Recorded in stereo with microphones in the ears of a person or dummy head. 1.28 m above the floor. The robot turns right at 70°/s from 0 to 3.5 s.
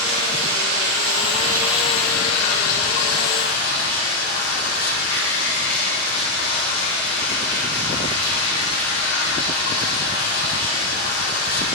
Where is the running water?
125° right, 4 m; by 11.8 s 120° left, 4 m.